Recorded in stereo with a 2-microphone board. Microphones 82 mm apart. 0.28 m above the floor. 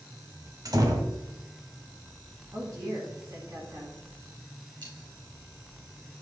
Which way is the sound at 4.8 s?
80° right.